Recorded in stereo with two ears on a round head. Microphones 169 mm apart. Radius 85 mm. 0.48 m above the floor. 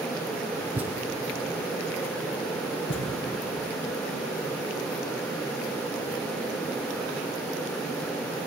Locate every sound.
0.8 s a thud: 10° right (ahead or behind), 1.1 m
2.9 s a thud: 70° left (ahead or behind), 3 m